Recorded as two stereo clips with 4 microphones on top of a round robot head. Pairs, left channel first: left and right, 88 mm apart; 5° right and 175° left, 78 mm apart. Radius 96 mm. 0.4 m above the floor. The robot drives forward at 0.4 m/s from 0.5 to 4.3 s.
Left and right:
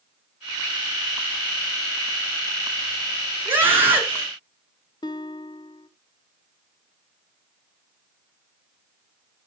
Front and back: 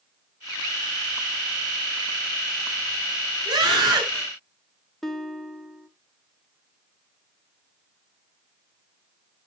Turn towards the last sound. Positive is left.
turn(degrees=80)